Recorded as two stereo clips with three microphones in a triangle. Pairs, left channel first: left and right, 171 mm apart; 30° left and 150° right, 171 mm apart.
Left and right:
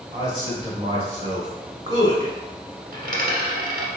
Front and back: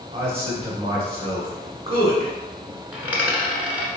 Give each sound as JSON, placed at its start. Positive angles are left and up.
{"t": 0.1, "sound": "a man speaking", "azimuth_deg": -125, "distance_m": 1.1}
{"t": 2.9, "sound": "a dropped coin", "azimuth_deg": -70, "distance_m": 1.2}